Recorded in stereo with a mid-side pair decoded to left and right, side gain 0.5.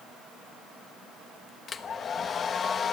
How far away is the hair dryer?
About 1.3 m.